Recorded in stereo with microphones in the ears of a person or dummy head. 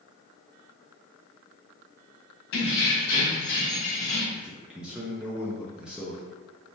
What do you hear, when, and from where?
2.5 s keys jangling: 65° left (ahead or behind), 1.5 m; by 4.2 s 40° left (ahead or behind), 1.5 m
4.3 s a man speaking: centre (ahead or behind), 0.5 m